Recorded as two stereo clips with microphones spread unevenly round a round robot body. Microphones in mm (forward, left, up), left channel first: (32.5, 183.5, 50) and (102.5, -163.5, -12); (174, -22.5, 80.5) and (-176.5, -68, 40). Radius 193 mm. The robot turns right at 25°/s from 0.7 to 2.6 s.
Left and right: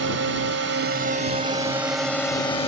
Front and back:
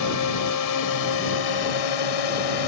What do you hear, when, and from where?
0.0 s a drone: 25° right; by 2.7 s 25° left